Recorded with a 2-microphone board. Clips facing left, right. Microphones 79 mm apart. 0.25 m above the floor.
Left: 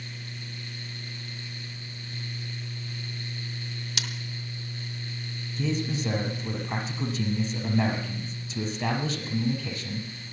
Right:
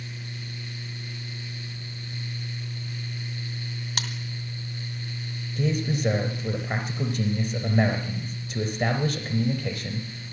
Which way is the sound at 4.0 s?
50° right (ahead or behind).